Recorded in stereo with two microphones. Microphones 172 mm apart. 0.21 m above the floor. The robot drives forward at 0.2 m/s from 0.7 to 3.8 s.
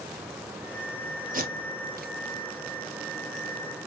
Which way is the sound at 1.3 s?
55° right (ahead or behind).